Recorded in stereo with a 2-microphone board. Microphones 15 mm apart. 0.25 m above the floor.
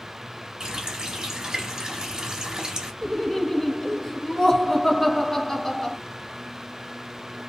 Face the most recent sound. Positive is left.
turn(degrees=20)  # may be behind; listen again after turning